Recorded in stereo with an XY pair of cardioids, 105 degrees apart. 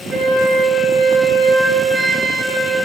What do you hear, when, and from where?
0.1 s a flute: 30° right, 3.5 m